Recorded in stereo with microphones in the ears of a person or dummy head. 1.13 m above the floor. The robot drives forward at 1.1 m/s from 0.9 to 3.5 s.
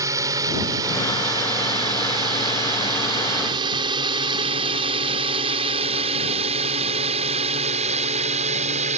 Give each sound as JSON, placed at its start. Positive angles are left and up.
{"t": 0.0, "sound": "a drone", "side_deg": -15}